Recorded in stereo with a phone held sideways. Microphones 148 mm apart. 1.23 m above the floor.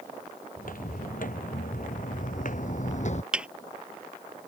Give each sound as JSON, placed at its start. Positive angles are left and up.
{"t": 0.6, "sound": "footsteps", "side_deg": 70}
{"t": 3.3, "sound": "a thud", "side_deg": -5}